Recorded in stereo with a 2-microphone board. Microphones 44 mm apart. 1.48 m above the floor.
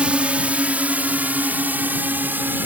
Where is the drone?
30° right (ahead or behind); by 2.7 s 50° right (ahead or behind).